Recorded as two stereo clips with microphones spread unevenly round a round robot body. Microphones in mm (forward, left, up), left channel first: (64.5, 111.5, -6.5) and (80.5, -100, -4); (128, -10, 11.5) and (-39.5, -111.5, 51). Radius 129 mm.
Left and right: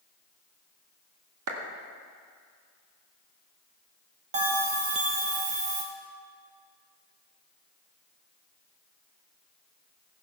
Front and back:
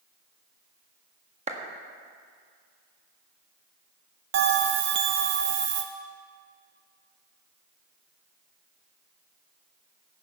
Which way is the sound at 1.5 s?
90° right.